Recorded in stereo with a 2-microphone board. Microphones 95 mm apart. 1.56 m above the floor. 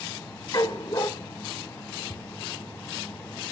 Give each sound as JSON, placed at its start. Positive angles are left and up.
{"t": 0.5, "sound": "a dog barking", "side_deg": 40, "distance_m": 1.6}
{"t": 2.1, "sound": "a thud", "side_deg": 75, "distance_m": 5.5}